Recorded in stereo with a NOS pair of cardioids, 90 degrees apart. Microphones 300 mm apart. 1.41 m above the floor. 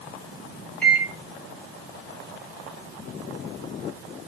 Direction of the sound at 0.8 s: 5° left.